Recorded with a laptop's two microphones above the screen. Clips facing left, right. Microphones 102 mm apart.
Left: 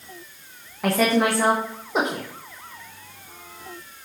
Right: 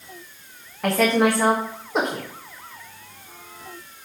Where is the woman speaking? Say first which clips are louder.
Right 1 dB; 5° left (ahead or behind), 1.2 m.